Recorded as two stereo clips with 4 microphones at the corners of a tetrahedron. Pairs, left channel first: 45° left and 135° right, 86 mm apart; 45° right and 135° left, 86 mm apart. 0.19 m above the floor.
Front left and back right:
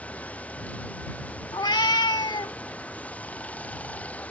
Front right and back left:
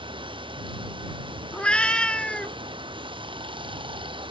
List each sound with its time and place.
0.0 s running water: 120° left
1.5 s a cat meowing: 30° left